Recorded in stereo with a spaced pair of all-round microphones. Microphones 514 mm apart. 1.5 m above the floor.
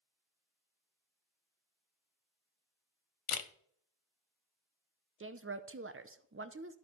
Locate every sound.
3.3 s a camera shutter: 75° left (ahead or behind), 0.7 m
5.2 s a woman speaking: 25° right (ahead or behind), 0.6 m